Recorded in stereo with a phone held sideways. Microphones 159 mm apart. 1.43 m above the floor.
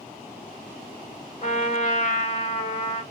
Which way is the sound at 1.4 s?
45° left (ahead or behind).